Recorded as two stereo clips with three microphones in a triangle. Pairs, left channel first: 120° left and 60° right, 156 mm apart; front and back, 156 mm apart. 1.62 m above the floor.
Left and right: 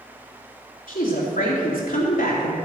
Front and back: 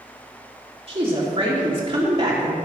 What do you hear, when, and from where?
0.9 s a woman speaking: 125° left, 3 m